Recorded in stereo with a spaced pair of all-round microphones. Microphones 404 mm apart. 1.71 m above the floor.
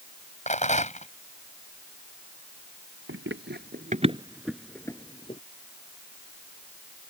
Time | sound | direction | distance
0.5 | a rattle | 15° left (ahead or behind) | ?
3.1 | running footsteps | 30° right (ahead or behind) | ?